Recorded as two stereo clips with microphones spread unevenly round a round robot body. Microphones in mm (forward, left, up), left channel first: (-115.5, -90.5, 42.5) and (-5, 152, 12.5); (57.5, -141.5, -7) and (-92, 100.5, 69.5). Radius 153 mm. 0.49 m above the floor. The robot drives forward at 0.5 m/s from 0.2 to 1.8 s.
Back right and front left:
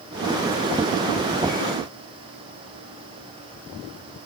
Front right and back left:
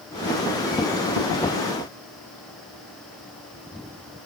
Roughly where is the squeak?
I don't hear a squeak.